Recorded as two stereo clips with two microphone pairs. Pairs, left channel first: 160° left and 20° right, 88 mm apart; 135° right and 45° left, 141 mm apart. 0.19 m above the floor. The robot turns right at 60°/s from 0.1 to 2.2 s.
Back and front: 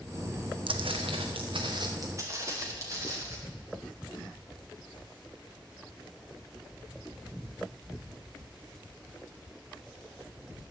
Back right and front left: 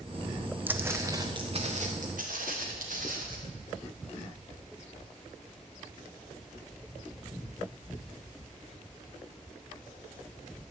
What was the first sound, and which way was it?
Footsteps, 30° right.